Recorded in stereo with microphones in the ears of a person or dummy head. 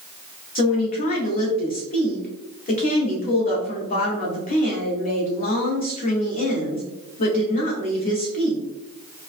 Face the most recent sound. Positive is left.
turn(degrees=45)  # may be behind; listen again after turning